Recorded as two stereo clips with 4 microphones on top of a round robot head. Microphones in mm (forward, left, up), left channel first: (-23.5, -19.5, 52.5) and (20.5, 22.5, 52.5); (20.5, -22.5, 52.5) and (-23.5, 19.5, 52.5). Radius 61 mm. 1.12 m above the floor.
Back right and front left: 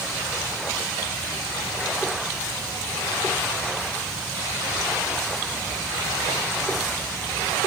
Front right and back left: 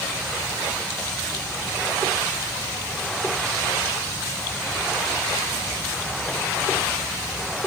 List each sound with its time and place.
Only background noise.